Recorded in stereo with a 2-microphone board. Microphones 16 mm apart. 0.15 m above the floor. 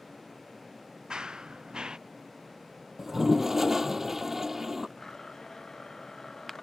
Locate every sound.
1.1 s running footsteps: 80° right
3.0 s a toilet flushing: 40° right (ahead or behind)
5.0 s a blender: 30° left (ahead or behind)